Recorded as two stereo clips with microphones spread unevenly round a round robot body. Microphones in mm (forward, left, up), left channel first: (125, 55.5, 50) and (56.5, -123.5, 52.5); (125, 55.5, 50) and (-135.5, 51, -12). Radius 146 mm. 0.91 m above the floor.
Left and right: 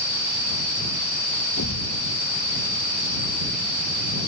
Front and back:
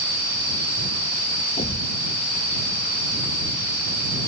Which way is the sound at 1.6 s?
65° left.